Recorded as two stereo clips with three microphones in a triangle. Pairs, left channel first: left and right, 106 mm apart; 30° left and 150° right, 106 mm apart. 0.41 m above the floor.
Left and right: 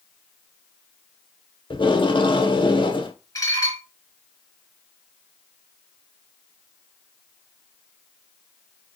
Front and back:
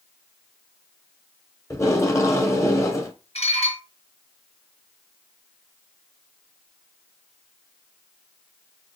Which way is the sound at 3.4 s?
35° left.